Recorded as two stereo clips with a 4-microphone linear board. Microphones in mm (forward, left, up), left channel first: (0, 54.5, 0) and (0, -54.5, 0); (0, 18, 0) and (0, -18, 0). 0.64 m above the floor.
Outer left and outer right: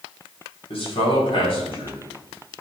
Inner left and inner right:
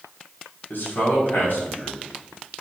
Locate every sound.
0.7 s a man speaking: 60° left (ahead or behind), 4 m